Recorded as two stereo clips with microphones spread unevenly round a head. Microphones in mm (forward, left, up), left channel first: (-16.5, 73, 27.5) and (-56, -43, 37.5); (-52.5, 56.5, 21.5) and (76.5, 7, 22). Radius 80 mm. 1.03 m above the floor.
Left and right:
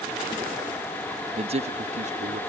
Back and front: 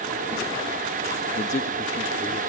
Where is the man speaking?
155° right; by 2.4 s 140° right.